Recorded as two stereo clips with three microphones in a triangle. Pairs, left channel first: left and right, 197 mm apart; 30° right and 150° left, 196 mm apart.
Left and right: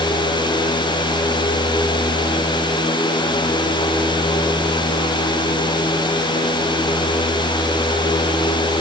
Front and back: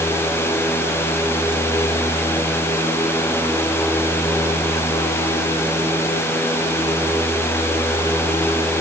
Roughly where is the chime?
No chime in this recording.